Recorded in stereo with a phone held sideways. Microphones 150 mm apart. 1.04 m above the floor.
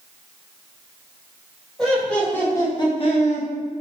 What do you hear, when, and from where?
1.8 s laughter: centre (ahead or behind), 1.1 m; by 3.5 s 65° left (ahead or behind), 0.8 m